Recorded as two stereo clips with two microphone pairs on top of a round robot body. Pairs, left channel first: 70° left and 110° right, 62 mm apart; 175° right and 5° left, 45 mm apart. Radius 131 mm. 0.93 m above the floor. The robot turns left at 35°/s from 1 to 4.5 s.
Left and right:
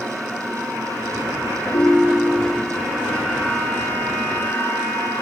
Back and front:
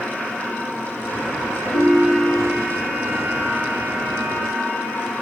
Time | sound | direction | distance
1.7 | a ringtone | 120° left | 1.0 m